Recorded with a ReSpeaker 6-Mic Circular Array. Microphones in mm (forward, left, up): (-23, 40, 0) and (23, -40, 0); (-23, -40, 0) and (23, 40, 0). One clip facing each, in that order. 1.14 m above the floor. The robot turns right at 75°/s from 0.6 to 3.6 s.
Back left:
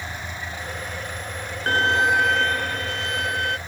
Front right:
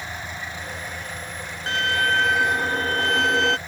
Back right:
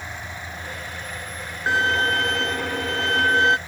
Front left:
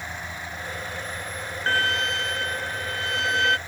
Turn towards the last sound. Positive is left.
turn(degrees=-50)